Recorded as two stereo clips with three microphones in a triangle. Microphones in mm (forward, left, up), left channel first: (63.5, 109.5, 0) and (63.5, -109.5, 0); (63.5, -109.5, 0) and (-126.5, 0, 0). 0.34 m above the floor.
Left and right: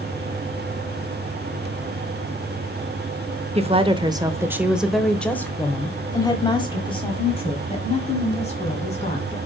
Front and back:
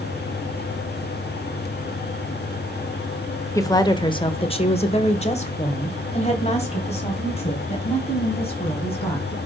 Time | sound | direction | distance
3.5 | a woman speaking | 90° right | 1.0 m